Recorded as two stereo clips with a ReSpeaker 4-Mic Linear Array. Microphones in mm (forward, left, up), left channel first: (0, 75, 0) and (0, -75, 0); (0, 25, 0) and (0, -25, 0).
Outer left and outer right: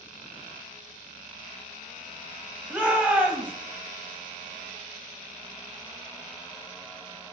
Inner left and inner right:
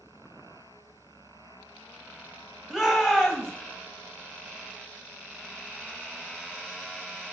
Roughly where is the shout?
Centre.